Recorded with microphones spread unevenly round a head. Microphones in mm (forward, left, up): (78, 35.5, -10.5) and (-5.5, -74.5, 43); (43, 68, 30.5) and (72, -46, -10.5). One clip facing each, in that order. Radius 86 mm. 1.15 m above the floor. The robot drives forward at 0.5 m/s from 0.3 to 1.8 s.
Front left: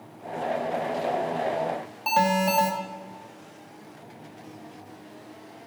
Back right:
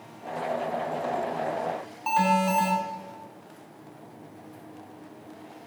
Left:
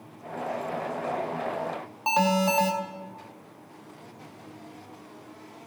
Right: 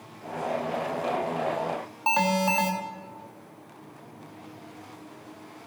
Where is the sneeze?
I don't hear a sneeze.